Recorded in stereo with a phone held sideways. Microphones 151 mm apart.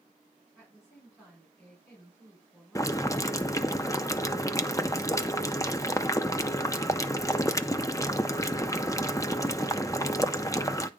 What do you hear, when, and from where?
0.6 s a woman speaking: 15° left (ahead or behind), 5.5 m
2.8 s boiling: 20° left (ahead or behind), 0.6 m